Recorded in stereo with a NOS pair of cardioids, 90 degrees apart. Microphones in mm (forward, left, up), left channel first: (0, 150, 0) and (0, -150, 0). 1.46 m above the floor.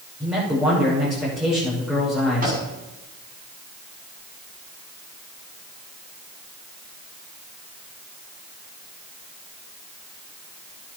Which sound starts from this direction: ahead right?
A microwave, at 2.4 s.